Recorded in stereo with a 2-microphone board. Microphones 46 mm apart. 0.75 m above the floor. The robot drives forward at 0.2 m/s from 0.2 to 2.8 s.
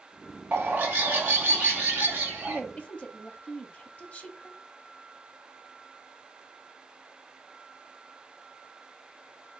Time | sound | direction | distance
0.5 | a bird | 45° right (ahead or behind) | 1.4 m
2.5 | a woman speaking | 30° left (ahead or behind) | 0.9 m